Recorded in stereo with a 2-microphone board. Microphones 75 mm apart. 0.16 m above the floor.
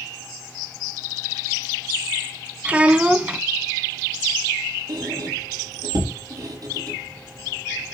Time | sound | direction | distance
2.6 | a child speaking | 15° right (ahead or behind) | 0.6 m
4.9 | a squeak | 55° right (ahead or behind) | 6.5 m